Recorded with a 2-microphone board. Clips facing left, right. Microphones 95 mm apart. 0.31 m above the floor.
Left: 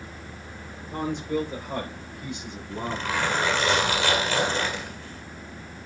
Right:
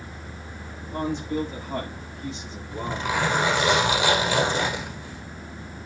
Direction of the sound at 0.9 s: 55° left (ahead or behind).